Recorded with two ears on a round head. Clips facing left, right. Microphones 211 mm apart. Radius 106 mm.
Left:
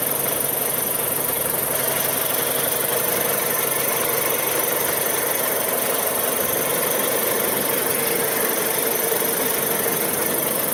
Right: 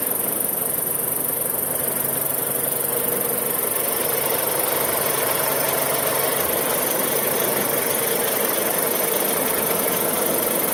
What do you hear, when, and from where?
0.0 s an insect: centre (ahead or behind), 1.5 m